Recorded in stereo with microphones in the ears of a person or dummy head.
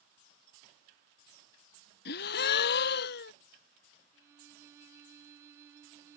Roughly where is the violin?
Centre.